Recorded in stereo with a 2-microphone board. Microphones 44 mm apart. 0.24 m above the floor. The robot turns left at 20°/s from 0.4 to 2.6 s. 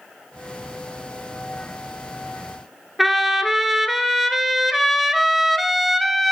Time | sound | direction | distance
3.0 | a trumpet | 5° right (ahead or behind) | 0.9 m